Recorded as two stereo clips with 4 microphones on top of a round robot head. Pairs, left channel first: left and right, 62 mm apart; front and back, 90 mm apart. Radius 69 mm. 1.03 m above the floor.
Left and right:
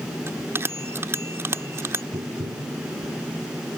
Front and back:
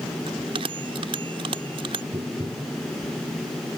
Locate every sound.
0.3 s a bell: 140° right
2.1 s tapping: 120° right